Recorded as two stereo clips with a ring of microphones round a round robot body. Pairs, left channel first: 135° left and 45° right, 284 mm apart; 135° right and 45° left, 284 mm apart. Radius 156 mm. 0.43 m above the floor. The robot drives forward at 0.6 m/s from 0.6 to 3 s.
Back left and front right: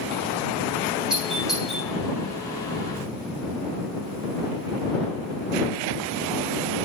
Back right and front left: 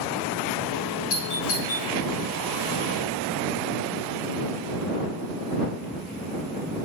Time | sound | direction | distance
1.1 | a doorbell | 135° right | 7 m